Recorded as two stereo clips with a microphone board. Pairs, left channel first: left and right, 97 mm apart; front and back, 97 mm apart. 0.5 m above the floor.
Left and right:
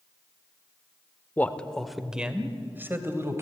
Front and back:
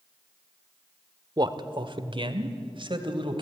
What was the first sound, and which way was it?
A man speaking, 155° left.